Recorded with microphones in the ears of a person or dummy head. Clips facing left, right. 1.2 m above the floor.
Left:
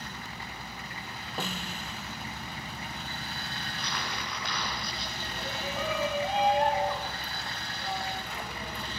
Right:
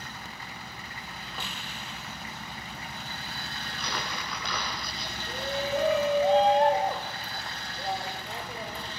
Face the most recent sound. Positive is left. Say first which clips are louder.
# right 8 dB
turn(degrees=-35)  # may be behind; listen again after turning